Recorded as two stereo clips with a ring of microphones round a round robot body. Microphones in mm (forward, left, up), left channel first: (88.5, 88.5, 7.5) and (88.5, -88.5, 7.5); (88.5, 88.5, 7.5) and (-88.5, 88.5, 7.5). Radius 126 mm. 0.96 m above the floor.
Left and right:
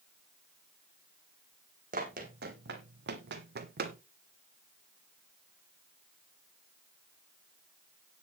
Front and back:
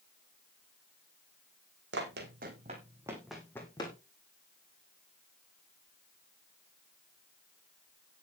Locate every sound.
1.9 s running footsteps: 145° right, 2.5 m; by 4.0 s 65° right, 2 m